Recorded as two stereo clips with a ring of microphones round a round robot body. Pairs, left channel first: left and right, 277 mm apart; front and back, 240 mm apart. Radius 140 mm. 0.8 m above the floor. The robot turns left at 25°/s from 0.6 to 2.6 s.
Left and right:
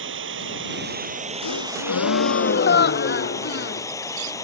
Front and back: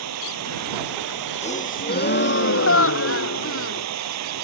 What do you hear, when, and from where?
0.0 s running water: 140° right; by 4.4 s 170° left
1.4 s a gasp: 65° left; by 3.9 s 35° left